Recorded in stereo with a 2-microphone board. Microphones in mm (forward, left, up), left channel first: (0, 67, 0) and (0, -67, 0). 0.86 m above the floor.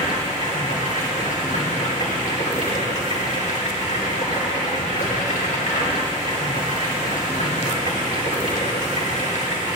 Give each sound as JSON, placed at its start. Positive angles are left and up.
{"t": 0.0, "sound": "running water", "side_deg": 70, "distance_m": 4.5}